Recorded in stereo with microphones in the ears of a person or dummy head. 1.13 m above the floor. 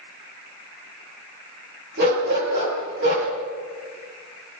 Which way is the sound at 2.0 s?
60° right (ahead or behind).